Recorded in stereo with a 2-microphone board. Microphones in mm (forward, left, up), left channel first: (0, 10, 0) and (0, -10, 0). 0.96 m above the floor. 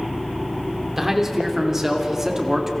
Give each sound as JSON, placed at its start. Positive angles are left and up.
{"t": 1.0, "sound": "a man speaking", "side_deg": -20, "distance_m": 3.0}